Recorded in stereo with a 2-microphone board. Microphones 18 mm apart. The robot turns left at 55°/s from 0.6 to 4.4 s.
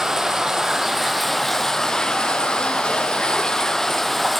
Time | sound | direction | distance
0.0 | running water | 145° right | 0.9 m